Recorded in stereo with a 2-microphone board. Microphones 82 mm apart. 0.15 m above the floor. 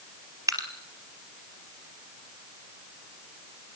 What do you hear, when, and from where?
0.5 s dripping: 40° right (ahead or behind), 3 m